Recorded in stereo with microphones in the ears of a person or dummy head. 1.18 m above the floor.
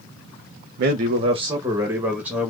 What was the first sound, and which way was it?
A man speaking, 55° right (ahead or behind).